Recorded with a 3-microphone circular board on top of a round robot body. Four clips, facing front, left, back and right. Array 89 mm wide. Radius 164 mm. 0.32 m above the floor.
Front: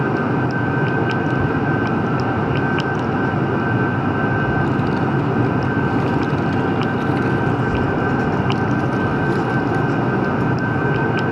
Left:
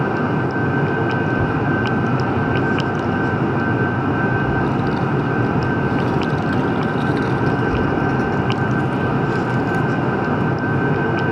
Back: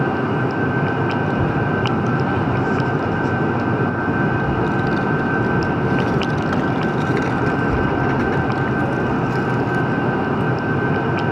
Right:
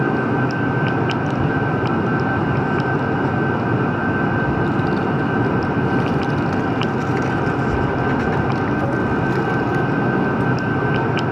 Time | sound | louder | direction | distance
1.2 | a child speaking | left 1 dB, front 1 dB | 155° left | 6 m